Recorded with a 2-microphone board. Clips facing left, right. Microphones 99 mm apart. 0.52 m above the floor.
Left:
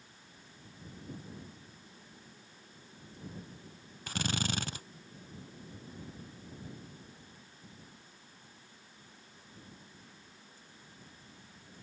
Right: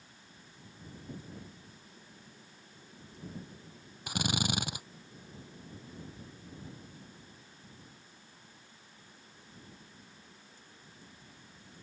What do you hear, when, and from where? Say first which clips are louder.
4.1 s a drill: right 2 dB; 15° right (ahead or behind)